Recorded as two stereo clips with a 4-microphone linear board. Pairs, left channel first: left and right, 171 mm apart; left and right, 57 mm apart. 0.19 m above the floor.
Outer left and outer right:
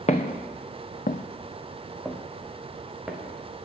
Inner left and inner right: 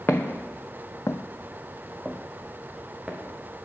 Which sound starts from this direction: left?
Footsteps, at 0.1 s.